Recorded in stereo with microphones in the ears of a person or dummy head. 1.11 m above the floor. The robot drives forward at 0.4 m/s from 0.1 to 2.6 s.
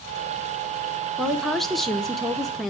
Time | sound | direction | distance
1.2 | a woman speaking | centre (ahead or behind) | 0.7 m